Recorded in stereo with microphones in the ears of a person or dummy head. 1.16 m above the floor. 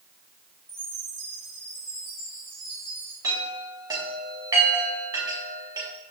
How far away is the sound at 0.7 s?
About 3.5 m.